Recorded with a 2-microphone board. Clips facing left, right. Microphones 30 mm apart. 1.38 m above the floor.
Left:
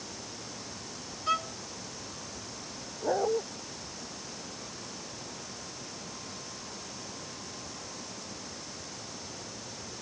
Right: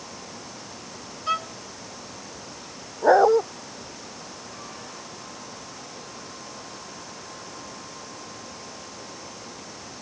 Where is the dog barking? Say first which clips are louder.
Right 12 dB; 55° right (ahead or behind).